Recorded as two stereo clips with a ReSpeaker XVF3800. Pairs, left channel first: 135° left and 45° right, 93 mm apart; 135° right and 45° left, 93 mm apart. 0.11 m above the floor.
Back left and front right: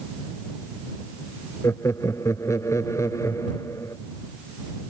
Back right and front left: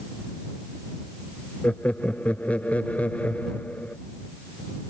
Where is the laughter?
160° left.